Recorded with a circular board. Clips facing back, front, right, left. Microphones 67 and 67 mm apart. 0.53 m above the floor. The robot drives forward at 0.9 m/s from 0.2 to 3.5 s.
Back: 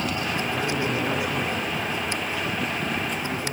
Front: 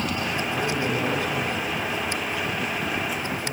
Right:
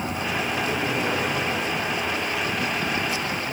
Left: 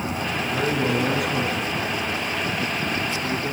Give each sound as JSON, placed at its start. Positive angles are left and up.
{"t": 0.5, "sound": "a man speaking", "azimuth_deg": 100, "distance_m": 6.5}